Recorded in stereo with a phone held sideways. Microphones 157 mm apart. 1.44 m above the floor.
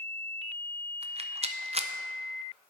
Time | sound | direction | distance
1.0 | a rattle | 40° right (ahead or behind) | 0.5 m